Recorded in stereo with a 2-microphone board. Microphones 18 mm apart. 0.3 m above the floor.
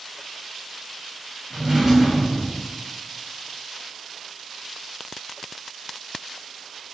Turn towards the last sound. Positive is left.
turn(degrees=-25)  # may be behind; listen again after turning